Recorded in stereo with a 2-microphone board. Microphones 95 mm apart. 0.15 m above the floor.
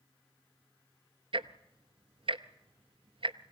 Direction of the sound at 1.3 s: 70° right (ahead or behind).